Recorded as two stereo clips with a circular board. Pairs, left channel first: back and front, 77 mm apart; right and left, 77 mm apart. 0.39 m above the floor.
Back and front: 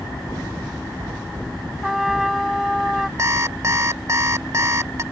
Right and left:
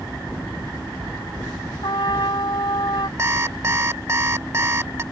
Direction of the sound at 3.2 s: 40° left.